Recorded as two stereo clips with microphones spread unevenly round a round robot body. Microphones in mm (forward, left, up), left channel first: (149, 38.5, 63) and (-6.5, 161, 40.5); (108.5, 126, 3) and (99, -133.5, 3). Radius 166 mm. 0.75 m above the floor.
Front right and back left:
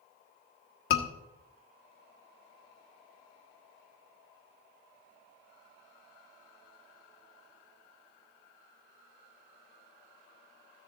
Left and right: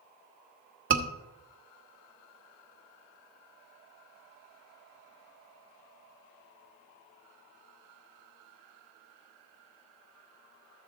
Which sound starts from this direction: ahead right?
A scream, at 0.9 s.